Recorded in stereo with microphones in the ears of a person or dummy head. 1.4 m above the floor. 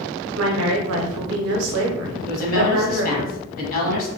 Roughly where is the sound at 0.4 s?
Right.